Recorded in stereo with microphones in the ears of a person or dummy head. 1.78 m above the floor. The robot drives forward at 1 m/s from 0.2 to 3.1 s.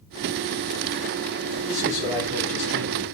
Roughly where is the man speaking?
Right.